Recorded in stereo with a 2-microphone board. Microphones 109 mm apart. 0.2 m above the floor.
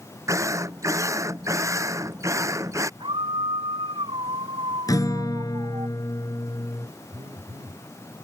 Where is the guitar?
35° left (ahead or behind).